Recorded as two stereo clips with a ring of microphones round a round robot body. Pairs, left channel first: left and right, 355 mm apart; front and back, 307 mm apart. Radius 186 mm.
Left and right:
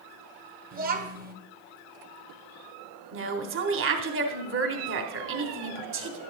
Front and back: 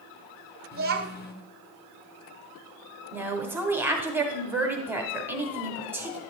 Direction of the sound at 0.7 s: 140° right.